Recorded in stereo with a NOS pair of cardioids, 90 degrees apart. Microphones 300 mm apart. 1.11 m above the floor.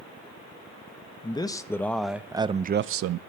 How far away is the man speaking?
About 1.3 m.